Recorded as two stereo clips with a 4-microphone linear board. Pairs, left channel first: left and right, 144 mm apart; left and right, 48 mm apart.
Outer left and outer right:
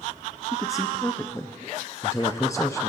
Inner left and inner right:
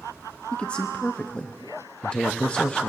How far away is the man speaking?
About 0.6 m.